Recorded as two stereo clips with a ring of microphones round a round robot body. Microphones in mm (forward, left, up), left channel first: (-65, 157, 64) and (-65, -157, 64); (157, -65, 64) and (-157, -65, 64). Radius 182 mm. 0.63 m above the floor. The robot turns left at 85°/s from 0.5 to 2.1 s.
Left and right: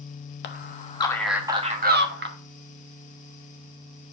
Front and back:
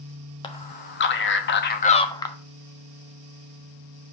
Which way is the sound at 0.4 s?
65° left.